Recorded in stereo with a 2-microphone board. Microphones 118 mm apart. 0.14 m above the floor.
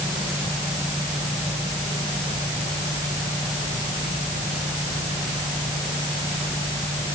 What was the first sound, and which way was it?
Only background noise.